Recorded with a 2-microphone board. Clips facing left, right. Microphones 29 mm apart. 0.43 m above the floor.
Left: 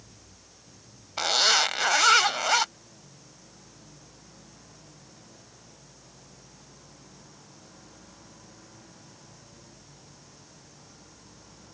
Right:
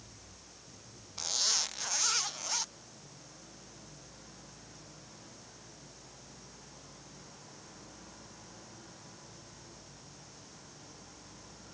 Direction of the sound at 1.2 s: 70° left (ahead or behind).